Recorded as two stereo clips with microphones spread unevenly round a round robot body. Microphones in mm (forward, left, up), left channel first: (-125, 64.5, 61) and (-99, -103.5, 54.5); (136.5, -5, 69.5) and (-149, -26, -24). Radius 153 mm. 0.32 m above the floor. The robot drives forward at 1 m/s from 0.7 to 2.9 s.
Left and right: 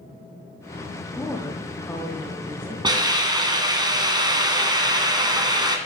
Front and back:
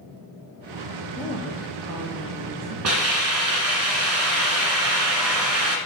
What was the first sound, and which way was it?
A woman speaking, straight behind.